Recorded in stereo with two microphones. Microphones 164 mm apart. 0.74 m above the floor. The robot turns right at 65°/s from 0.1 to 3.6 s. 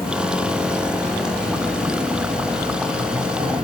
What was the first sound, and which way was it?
An insect, 65° left.